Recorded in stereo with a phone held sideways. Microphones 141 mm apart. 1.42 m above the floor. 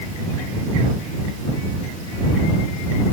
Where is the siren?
No siren in this recording.